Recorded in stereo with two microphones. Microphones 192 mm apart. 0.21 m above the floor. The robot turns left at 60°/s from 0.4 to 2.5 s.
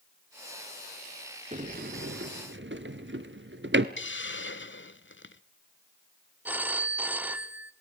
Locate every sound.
1.5 s a sliding door: 40° right (ahead or behind), 1.0 m; by 3.9 s 75° right (ahead or behind), 1.0 m
4.0 s a hiss: 80° left, 0.6 m
6.5 s a phone ringing: 10° right (ahead or behind), 0.8 m